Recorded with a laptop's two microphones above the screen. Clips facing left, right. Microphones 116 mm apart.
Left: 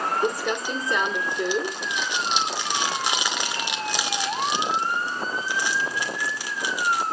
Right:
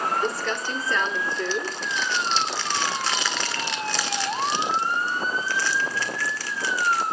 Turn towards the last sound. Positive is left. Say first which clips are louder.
# left 2 dB
turn(degrees=15)  # may be behind; listen again after turning